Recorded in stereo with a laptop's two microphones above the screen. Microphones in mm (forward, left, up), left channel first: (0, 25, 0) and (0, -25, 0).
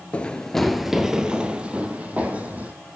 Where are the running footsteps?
20° left (ahead or behind), 1.1 m; by 2.7 s 30° right (ahead or behind), 3 m.